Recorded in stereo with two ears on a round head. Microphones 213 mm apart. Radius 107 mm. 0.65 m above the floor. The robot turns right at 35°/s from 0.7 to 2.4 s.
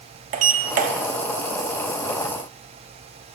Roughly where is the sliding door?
Right.